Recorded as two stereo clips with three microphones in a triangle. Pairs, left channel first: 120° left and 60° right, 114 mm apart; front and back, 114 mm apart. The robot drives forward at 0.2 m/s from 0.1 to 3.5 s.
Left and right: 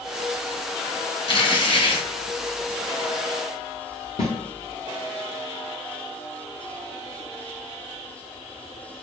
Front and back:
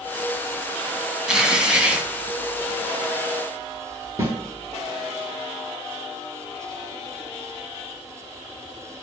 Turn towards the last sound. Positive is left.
turn(degrees=120)